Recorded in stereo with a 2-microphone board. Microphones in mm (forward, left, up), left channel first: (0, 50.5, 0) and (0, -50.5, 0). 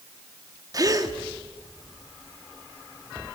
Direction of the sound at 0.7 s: 40° right (ahead or behind).